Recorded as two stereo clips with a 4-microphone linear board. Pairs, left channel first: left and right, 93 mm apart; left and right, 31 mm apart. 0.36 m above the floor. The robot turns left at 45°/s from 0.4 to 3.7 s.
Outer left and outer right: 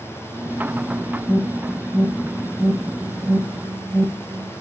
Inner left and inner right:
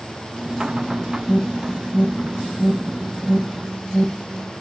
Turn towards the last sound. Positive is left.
turn(degrees=-30)  # may be behind; listen again after turning